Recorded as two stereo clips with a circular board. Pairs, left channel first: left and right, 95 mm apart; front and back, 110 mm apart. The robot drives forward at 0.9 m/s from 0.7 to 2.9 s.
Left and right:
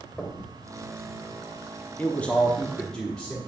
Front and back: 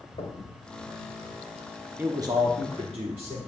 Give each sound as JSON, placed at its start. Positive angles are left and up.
{"t": 0.2, "sound": "knocking", "azimuth_deg": 5, "distance_m": 1.4}
{"t": 2.0, "sound": "a man speaking", "azimuth_deg": 135, "distance_m": 0.6}